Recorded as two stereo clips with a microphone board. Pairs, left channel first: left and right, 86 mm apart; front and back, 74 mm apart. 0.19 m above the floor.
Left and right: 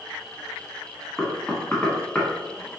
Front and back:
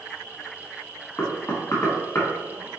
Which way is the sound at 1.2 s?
20° left.